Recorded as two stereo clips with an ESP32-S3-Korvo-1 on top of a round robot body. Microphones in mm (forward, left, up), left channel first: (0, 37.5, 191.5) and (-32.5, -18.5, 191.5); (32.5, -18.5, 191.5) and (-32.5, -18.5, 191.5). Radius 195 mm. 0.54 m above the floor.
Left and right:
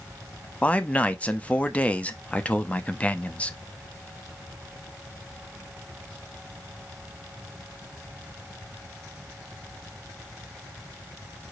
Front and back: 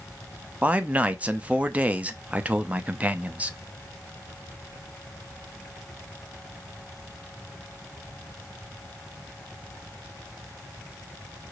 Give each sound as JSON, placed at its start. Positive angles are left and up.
{"t": 0.6, "sound": "a man speaking", "azimuth_deg": 120, "distance_m": 0.9}